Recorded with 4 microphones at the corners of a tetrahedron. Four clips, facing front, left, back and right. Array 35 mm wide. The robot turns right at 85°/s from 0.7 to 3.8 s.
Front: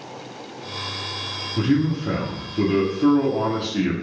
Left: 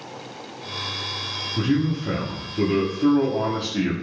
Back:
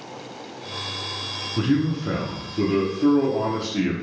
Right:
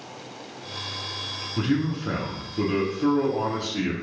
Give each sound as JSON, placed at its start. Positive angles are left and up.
{"t": 1.6, "sound": "a man speaking", "azimuth_deg": -150, "distance_m": 1.2}